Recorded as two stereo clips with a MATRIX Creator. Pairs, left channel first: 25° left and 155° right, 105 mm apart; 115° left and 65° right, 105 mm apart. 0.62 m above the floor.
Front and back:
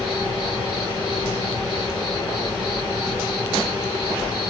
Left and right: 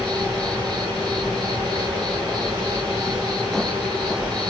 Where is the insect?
20° right, 1.6 m.